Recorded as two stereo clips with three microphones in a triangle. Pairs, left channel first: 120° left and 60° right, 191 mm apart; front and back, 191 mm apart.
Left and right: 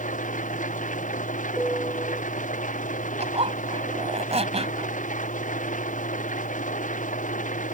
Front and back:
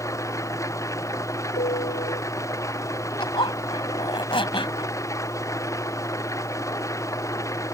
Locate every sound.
0.0 s an engine running: 75° left
1.6 s a piano: 40° left
3.2 s a zipper: 40° right